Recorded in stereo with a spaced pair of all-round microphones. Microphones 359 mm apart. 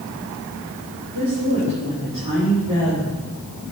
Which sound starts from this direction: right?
A woman speaking, at 1.1 s.